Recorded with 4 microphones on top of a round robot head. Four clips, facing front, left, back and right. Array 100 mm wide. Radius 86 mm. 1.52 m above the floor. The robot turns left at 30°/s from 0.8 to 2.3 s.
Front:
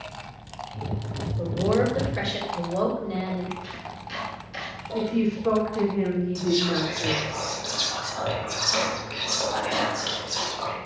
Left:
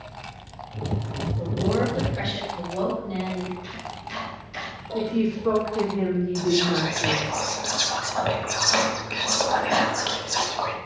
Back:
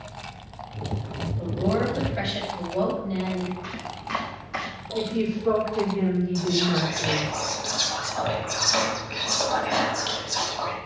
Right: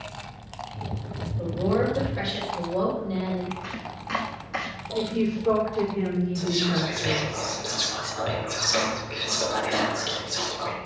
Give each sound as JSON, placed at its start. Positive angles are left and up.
{"t": 1.4, "sound": "a woman speaking", "azimuth_deg": 25, "distance_m": 4.0}
{"t": 3.6, "sound": "chopping", "azimuth_deg": -130, "distance_m": 0.9}
{"t": 4.9, "sound": "a woman speaking", "azimuth_deg": 35, "distance_m": 3.5}
{"t": 6.3, "sound": "whispering", "azimuth_deg": 95, "distance_m": 1.9}